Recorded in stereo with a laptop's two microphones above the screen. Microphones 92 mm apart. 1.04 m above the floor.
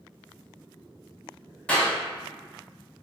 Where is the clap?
10° left (ahead or behind), 1.7 m.